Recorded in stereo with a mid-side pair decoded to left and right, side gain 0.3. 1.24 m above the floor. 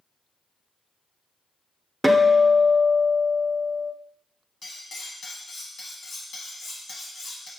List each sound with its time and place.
2.0 s a guitar: 15° right, 0.8 m
4.6 s cutlery clinking: 70° left, 1.2 m